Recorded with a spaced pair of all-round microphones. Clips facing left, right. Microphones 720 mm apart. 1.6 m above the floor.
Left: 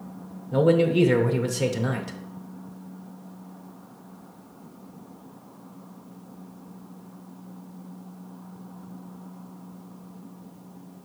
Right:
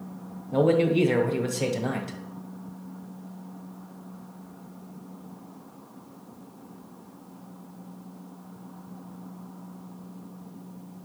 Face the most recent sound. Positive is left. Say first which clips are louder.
# left 1 dB
turn(degrees=45)  # may be behind; listen again after turning